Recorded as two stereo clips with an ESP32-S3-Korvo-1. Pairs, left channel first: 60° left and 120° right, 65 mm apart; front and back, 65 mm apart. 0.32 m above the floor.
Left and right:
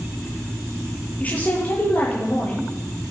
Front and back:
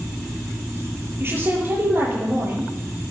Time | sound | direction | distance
1.2 | a woman speaking | 125° left | 8.5 m